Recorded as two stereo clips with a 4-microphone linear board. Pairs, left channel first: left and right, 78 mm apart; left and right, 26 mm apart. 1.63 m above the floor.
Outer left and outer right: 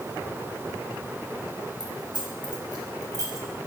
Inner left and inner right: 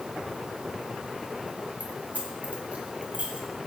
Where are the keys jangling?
75° right (ahead or behind), 3.5 m; by 3.5 s 45° right (ahead or behind), 3.5 m.